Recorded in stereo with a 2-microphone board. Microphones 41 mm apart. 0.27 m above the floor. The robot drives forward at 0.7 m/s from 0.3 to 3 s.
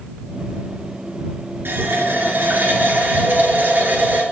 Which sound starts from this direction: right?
A running tap, at 1.6 s.